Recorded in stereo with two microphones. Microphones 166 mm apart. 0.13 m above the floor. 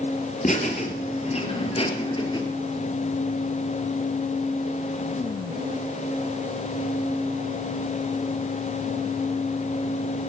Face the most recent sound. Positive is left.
turn(degrees=30)  # may be behind; listen again after turning